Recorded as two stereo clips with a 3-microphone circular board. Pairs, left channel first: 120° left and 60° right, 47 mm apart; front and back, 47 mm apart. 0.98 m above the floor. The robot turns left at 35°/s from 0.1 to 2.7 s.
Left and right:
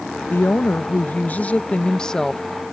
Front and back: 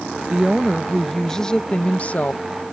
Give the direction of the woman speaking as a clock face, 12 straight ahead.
8 o'clock.